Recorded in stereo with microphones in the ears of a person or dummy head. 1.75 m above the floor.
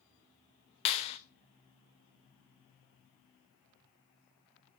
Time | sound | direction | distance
0.8 | a clap | 35° left (ahead or behind) | 0.6 m